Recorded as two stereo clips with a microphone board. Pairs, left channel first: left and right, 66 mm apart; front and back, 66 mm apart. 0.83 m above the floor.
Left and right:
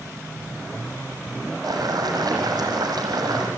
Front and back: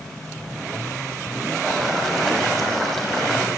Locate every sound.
1.6 s boiling: 85° right, 7 m